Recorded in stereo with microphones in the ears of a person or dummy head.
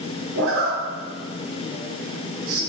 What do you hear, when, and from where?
0.3 s a zipper: 85° right, 1.3 m